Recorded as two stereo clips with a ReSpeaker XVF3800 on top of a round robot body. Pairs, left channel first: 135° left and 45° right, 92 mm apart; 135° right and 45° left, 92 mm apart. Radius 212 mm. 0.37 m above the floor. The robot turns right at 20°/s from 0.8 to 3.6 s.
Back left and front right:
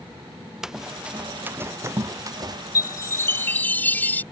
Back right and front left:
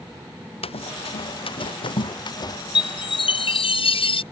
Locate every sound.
0.6 s running footsteps: 130° right; by 2.6 s 90° right
2.8 s a chime: 170° right; by 4.2 s 150° right